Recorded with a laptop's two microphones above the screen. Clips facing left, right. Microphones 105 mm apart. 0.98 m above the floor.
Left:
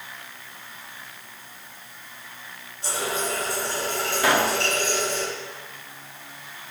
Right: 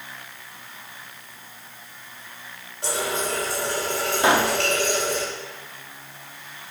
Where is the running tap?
70° right (ahead or behind), 3 m.